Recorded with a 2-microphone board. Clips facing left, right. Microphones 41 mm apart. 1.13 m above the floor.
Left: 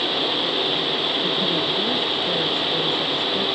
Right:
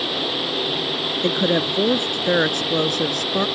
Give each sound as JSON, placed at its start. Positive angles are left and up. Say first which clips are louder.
{"t": 1.2, "sound": "a woman speaking", "louder": "right 2 dB", "side_deg": -80}